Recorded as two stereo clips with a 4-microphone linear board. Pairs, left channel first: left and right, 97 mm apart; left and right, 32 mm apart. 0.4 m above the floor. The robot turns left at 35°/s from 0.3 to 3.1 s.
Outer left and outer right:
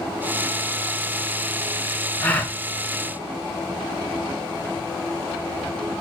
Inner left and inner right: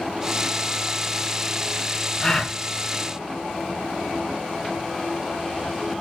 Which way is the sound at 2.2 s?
20° left (ahead or behind).